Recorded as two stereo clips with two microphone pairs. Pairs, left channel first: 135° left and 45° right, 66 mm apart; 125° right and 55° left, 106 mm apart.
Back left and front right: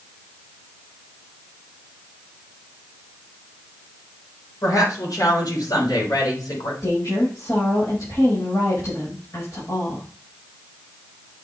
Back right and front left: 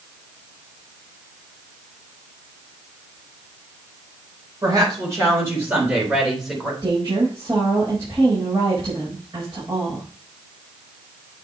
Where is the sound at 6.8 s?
105° left, 5.5 m.